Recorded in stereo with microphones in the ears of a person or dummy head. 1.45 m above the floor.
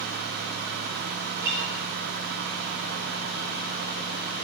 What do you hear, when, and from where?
1.3 s a guitar: 55° right (ahead or behind), 2 m